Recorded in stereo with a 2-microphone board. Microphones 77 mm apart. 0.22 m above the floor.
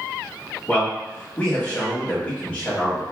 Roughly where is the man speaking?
Left.